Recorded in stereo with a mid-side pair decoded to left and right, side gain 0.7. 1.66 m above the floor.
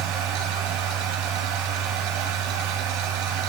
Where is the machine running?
70° right, 2.5 m.